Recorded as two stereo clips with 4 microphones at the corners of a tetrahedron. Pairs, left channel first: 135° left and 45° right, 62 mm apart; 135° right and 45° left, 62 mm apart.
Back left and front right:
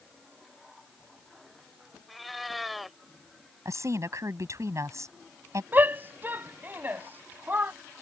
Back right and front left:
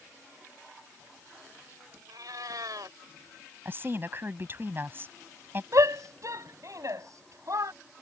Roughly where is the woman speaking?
Ahead.